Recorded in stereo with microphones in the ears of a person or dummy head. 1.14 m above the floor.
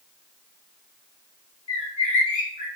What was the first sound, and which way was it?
A bird, 40° left (ahead or behind).